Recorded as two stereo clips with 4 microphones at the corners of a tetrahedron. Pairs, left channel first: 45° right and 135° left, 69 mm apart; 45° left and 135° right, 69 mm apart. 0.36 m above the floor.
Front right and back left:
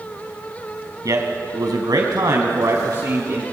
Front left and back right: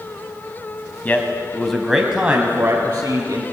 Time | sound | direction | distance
1.1 | a man speaking | 105° left | 2.5 m